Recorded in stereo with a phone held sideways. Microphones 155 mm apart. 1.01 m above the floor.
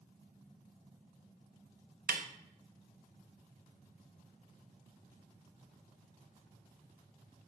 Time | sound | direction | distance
2.1 | a snare drum | 65° right (ahead or behind) | 0.6 m